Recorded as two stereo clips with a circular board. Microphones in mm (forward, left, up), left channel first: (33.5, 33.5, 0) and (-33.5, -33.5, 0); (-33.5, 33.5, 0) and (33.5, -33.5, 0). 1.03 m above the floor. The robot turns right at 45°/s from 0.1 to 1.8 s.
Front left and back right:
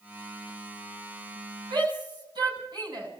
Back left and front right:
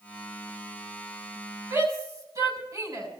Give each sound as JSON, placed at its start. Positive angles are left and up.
{"t": 1.7, "sound": "a shout", "azimuth_deg": -100, "distance_m": 8.0}